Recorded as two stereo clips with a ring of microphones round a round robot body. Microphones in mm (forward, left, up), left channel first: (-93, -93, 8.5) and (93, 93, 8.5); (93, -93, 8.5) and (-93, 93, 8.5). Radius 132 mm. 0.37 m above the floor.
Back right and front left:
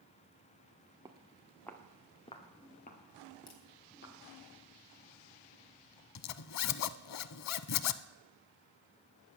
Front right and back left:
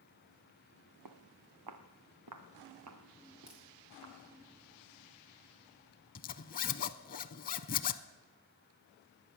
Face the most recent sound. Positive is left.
turn(degrees=-105)